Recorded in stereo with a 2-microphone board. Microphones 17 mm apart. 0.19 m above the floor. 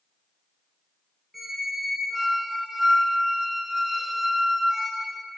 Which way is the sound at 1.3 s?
20° right (ahead or behind).